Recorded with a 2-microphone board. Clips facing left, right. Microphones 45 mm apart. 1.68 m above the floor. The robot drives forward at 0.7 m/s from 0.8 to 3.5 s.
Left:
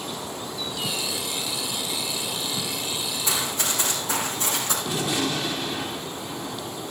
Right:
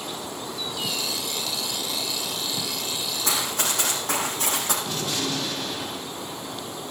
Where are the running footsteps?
70° right (ahead or behind), 5.5 m; by 4.8 s 65° right (ahead or behind), 4.5 m.